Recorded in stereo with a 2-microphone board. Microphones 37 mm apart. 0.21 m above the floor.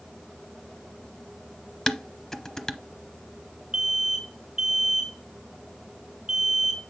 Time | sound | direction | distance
1.9 | dishes clattering | 15° left (ahead or behind) | 0.7 m
3.7 | an alarm | 20° right (ahead or behind) | 2.5 m